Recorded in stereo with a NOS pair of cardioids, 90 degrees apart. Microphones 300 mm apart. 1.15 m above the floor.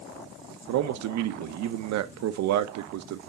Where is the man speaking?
65° right, 0.7 m.